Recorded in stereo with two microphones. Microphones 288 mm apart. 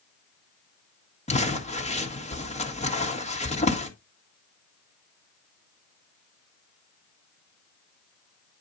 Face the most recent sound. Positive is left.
turn(degrees=20)  # may be behind; listen again after turning